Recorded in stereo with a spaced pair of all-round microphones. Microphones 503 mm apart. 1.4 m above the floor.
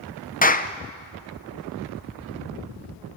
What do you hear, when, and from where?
0.4 s a clap: 15° left (ahead or behind), 0.7 m